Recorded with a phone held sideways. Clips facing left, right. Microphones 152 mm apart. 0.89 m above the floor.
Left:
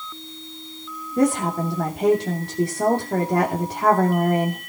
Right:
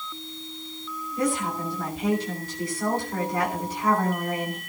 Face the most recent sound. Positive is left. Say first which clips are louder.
# left 7 dB
turn(degrees=75)  # may be behind; listen again after turning